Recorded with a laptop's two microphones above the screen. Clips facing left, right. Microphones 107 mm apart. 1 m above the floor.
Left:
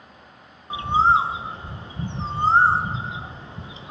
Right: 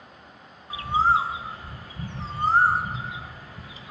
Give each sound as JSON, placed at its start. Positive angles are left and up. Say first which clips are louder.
{"t": 0.7, "sound": "a bird", "louder": "left 3 dB", "side_deg": 25, "distance_m": 0.8}